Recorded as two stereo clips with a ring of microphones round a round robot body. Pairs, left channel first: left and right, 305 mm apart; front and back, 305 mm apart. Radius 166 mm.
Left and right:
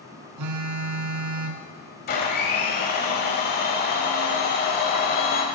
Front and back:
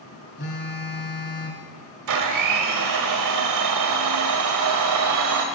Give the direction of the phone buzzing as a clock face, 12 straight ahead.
2 o'clock.